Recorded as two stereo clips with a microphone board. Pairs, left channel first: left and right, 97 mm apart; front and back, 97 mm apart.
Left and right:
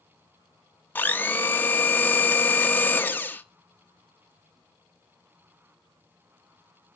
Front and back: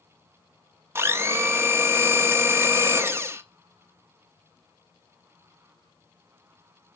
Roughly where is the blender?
Behind left.